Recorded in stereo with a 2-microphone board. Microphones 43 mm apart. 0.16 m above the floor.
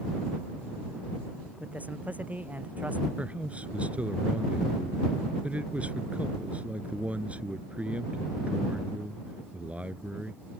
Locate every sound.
1.6 s a man speaking: 35° right (ahead or behind)
3.2 s a man speaking: 30° right (ahead or behind)